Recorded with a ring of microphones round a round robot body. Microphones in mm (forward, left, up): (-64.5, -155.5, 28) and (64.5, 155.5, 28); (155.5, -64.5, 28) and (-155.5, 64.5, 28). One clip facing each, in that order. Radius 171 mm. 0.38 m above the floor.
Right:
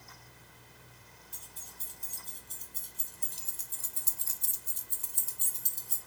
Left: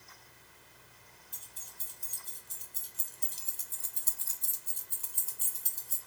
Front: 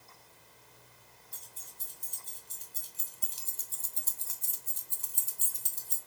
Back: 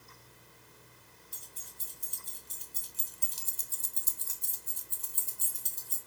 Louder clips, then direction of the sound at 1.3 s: Right 4 dB, back 2 dB; 140° left.